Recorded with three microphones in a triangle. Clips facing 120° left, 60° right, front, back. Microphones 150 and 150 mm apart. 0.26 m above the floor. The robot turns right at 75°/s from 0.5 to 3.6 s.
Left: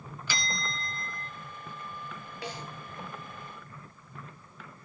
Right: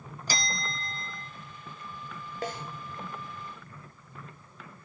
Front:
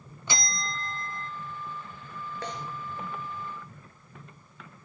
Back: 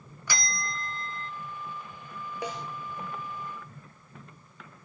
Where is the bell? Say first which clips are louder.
Right 2 dB, front 1 dB; 55° right, 0.5 m; by 1.3 s 5° left, 0.5 m.